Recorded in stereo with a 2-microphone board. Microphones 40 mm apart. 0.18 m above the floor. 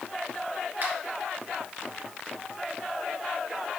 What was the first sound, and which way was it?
A finger snap, 45° right (ahead or behind).